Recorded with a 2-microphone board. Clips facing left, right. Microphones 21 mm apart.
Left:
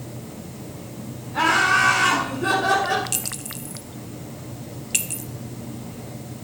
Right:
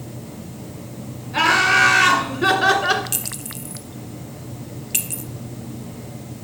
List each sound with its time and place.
1.3 s laughter: 65° right (ahead or behind), 3 m; by 3.0 s 60° right (ahead or behind), 1.8 m
3.1 s a clink: 10° left (ahead or behind), 0.6 m